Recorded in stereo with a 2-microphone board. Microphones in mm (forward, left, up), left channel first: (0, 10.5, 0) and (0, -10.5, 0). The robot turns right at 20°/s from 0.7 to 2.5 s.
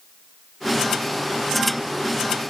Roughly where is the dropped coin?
I don't hear a dropped coin.